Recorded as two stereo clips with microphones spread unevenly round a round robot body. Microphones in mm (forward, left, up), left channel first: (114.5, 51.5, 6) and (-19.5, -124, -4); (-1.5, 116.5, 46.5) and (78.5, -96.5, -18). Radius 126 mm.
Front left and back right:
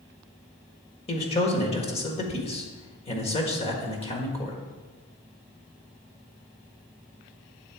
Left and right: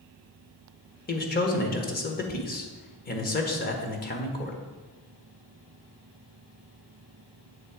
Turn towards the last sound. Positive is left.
turn(degrees=80)